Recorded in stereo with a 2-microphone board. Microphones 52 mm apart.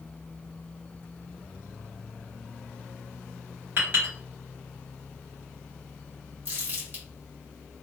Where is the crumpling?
45° right (ahead or behind), 1.3 m.